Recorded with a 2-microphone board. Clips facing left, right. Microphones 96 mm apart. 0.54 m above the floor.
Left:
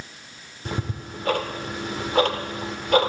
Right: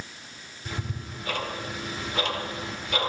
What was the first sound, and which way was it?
Ticking, 55° left (ahead or behind).